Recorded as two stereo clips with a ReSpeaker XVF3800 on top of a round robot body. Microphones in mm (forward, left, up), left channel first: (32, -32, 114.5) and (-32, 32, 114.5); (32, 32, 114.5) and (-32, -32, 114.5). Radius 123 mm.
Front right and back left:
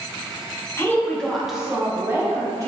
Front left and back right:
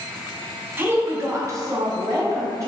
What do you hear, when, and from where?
0.8 s a woman speaking: 85° right, 0.8 m; by 2.7 s straight behind, 1.1 m